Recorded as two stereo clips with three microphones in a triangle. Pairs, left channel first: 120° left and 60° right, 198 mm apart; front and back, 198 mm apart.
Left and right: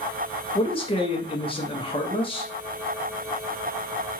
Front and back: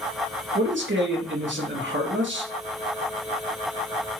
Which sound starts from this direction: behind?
A man speaking, at 0.6 s.